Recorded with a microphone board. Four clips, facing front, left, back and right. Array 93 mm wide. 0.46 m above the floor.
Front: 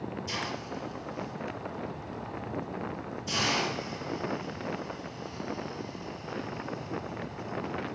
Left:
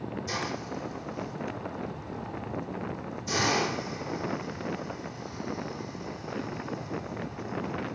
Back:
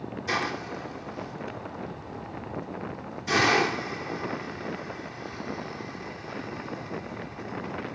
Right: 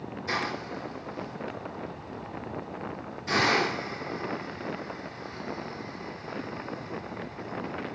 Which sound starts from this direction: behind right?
A hiss, at 0.3 s.